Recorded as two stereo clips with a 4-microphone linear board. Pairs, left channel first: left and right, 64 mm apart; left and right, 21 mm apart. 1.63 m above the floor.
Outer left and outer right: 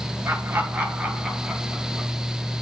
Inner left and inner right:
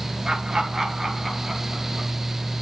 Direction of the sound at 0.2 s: 35° right (ahead or behind).